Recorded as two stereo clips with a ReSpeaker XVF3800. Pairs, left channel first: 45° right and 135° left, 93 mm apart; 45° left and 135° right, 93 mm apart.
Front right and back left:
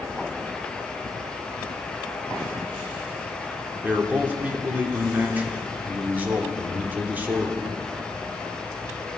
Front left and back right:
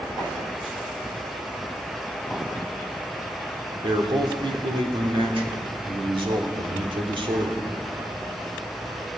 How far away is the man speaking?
About 2 m.